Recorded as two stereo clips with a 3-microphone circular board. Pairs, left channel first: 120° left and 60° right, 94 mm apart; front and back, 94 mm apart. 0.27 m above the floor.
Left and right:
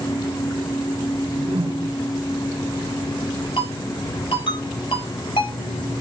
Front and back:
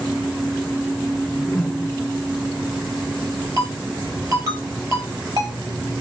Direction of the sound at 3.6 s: 130° left.